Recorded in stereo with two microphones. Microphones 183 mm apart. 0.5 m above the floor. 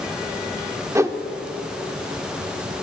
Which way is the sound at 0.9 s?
15° right (ahead or behind).